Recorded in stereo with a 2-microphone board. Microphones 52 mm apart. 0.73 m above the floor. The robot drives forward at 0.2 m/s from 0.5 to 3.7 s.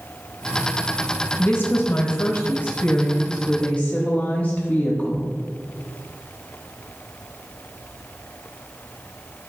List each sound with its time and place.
1.4 s a woman speaking: 35° left (ahead or behind), 0.7 m; by 5.3 s 25° left (ahead or behind), 1.0 m